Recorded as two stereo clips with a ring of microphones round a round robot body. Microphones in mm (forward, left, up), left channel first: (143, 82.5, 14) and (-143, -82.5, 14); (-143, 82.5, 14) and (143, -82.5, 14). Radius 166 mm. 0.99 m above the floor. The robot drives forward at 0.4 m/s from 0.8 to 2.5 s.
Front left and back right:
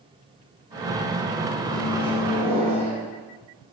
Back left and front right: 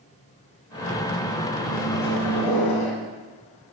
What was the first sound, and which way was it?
A microwave, 115° left.